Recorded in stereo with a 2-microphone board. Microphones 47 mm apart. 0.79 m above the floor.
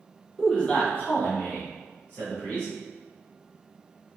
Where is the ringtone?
I don't hear a ringtone.